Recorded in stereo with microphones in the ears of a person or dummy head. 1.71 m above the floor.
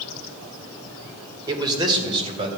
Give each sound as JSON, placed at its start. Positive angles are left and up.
{"t": 1.5, "sound": "a man speaking", "side_deg": -25, "distance_m": 1.6}